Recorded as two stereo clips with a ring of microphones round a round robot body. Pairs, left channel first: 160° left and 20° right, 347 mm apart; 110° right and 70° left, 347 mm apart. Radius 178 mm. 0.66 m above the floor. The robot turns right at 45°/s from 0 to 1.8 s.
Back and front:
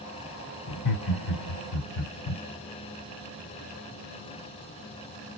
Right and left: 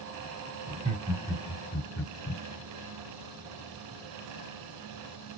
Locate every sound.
0.7 s laughter: 125° left, 1.9 m; by 2.4 s 175° left, 1.9 m